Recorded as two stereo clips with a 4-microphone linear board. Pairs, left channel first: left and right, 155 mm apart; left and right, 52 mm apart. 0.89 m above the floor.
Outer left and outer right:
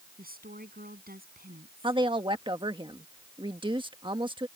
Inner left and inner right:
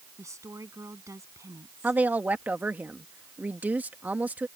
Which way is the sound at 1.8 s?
30° right (ahead or behind).